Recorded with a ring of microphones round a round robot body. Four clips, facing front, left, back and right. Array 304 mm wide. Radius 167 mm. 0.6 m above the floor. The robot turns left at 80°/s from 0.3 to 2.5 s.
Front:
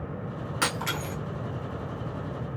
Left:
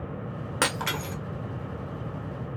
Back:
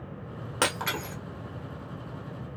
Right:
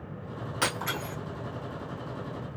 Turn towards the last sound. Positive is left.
turn(degrees=-15)